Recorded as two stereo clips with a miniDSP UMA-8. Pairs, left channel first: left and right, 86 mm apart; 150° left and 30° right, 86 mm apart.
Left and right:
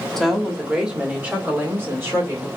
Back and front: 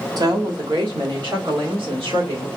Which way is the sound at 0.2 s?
5° left.